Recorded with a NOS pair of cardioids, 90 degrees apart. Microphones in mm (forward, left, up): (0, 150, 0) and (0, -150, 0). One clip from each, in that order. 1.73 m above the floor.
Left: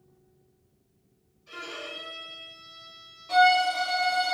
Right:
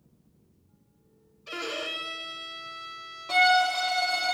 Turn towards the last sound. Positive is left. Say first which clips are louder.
# left 1 dB
turn(degrees=-45)